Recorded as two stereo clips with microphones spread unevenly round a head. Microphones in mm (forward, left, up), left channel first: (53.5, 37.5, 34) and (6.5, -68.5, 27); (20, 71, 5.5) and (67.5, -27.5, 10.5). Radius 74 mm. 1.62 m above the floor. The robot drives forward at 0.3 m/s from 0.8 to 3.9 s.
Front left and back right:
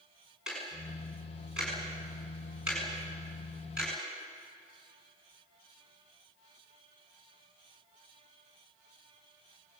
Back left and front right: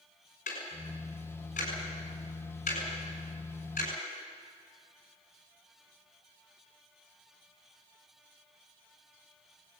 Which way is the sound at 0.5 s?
160° left.